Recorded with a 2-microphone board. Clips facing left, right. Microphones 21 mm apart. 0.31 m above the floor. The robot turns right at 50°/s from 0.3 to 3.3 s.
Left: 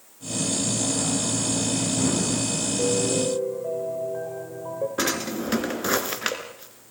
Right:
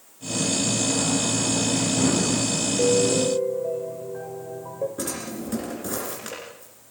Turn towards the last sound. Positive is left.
turn(degrees=50)  # may be behind; listen again after turning